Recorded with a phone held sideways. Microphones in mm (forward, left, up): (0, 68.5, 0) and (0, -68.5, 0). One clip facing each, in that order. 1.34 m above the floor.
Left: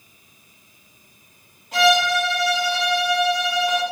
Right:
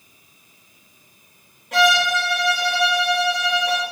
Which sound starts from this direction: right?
A violin, at 1.7 s.